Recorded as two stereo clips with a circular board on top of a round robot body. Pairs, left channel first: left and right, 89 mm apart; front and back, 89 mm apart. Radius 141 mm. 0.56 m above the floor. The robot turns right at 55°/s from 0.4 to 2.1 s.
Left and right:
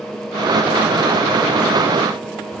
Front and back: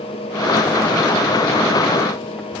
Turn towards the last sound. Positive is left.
No sound to turn to.